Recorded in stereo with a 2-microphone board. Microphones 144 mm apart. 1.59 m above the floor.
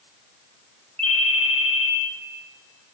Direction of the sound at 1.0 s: 40° right (ahead or behind).